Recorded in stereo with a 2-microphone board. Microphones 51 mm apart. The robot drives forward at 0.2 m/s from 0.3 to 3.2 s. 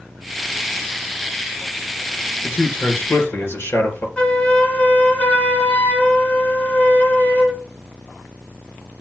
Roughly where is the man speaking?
Left.